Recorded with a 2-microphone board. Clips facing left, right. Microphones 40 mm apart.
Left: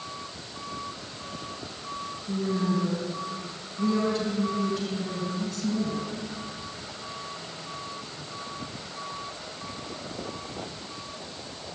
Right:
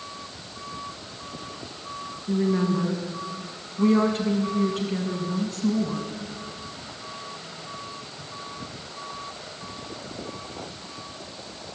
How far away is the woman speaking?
About 6 m.